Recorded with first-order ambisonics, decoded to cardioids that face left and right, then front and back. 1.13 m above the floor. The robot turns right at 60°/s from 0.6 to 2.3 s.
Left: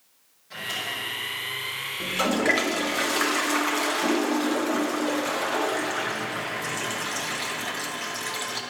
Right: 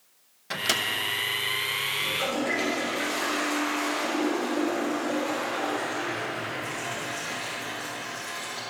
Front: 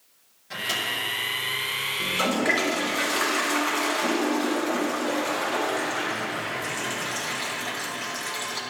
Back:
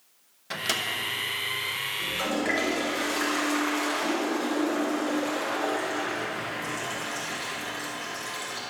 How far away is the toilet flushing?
About 1.2 m.